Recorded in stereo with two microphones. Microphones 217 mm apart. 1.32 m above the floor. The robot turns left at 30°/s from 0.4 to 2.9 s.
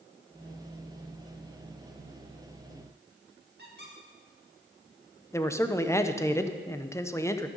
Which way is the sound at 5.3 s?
15° left (ahead or behind).